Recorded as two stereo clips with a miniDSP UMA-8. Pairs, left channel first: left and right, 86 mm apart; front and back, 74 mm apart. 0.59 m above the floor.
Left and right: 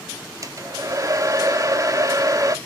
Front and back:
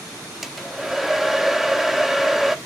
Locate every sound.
0.4 s a hair dryer: 95° right, 1.2 m